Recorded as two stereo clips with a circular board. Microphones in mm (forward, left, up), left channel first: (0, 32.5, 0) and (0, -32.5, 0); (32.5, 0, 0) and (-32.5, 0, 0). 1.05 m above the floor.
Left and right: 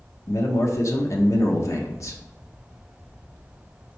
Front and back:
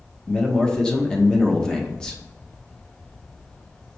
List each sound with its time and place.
0.3 s a man speaking: 75° left, 0.7 m